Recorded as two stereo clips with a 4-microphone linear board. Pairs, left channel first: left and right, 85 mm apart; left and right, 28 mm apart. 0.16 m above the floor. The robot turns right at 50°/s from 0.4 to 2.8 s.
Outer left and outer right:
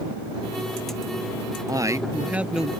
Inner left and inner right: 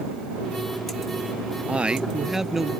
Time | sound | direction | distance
1.7 | a man speaking | 55° right | ?